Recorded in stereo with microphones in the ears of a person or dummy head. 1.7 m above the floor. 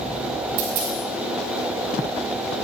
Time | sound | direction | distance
0.6 | a dropped coin | 45° right (ahead or behind) | 2.5 m